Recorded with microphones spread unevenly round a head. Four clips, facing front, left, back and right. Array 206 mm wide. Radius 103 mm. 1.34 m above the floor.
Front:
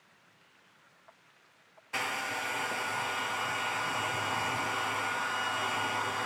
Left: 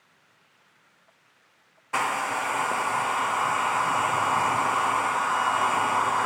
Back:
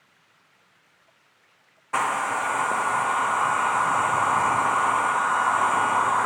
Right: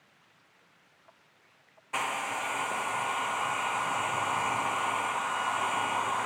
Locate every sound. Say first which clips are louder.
1.9 s a hair dryer: left 6 dB, back 11 dB; 140° left, 0.8 m